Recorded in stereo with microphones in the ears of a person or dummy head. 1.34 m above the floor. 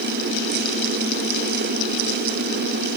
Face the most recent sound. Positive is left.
No sound to turn to.